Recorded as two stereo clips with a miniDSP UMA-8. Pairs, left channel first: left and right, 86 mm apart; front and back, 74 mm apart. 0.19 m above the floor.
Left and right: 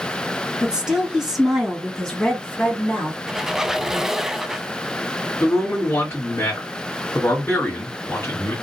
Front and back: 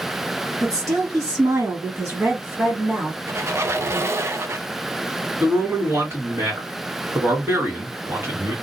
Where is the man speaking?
140° left, 2 m.